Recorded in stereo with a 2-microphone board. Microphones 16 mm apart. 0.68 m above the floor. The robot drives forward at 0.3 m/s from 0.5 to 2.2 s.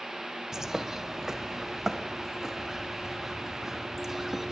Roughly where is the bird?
Right.